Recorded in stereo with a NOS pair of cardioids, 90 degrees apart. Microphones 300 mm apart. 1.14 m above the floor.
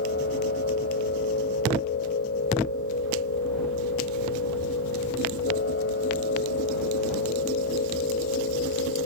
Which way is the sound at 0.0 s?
45° left.